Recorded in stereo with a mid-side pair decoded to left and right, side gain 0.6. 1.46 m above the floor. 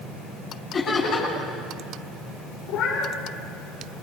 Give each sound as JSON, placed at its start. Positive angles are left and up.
{"t": 0.7, "sound": "laughter", "azimuth_deg": 35, "distance_m": 9.5}
{"t": 2.7, "sound": "a cat meowing", "azimuth_deg": 65, "distance_m": 8.0}